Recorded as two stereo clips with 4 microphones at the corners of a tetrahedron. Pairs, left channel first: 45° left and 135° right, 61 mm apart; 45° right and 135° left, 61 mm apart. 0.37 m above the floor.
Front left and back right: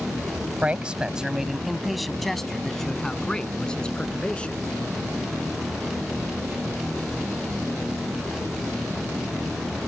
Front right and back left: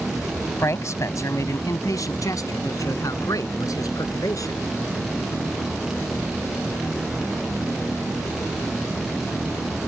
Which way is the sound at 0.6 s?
70° right.